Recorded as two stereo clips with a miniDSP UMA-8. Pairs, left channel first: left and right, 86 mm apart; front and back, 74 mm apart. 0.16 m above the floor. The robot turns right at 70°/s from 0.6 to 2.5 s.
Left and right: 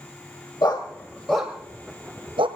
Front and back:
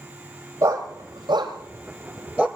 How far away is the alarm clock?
No alarm clock in this recording.